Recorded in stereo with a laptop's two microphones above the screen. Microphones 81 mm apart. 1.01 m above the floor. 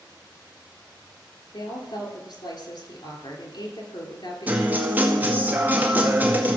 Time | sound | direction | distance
1.5 | a woman speaking | 65° left (ahead or behind) | 2.5 m
4.5 | a guitar | 20° right (ahead or behind) | 2 m